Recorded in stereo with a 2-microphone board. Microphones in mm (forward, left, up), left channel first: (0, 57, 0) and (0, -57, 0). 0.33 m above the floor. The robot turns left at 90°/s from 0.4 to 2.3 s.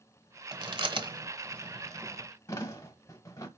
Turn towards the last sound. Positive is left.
turn(degrees=25)  # may be behind; listen again after turning